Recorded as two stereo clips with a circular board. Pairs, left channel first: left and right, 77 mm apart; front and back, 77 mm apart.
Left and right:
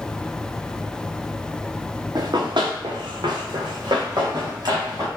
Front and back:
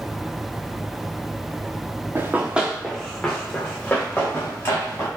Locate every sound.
2.1 s running footsteps: 120° right, 0.8 m; by 5.1 s 55° right, 2.5 m